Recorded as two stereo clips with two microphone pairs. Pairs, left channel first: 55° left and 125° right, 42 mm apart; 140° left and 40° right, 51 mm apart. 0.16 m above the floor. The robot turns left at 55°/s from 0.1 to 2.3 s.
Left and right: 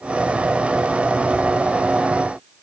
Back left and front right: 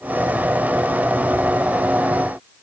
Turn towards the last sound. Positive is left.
No sound to turn to.